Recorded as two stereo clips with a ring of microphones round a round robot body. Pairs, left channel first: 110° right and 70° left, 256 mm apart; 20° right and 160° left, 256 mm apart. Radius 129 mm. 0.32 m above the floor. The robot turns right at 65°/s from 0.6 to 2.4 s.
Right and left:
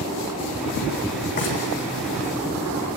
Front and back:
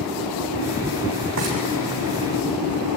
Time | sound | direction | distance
1.4 | frying | 160° right | 7.5 m